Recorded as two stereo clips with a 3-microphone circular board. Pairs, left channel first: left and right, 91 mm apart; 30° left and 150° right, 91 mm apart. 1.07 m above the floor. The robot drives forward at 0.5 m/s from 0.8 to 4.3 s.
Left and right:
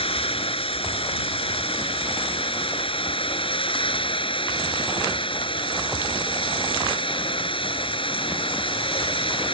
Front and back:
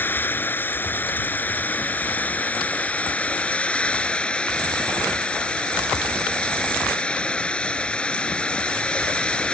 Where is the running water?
100° left; by 9.5 s 110° left.